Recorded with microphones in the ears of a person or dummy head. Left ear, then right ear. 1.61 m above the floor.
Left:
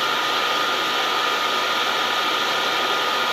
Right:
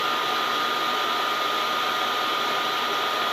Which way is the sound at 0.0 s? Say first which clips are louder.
Left 3 dB; 10° left (ahead or behind).